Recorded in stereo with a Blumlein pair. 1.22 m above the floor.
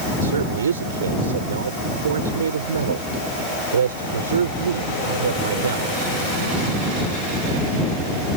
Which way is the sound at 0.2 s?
65° right.